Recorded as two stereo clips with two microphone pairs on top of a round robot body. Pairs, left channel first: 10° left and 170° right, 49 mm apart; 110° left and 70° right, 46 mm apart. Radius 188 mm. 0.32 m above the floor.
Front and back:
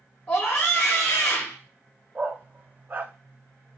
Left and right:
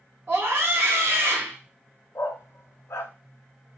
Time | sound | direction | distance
0.3 | a scream | 35° right | 2.5 m
2.1 | a dog barking | 135° left | 0.5 m